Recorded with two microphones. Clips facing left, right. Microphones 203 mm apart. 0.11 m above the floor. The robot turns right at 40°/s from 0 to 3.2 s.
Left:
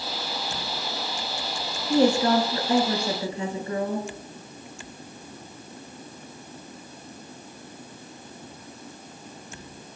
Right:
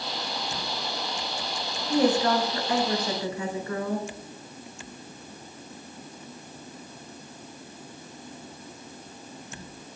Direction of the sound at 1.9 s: 25° left (ahead or behind).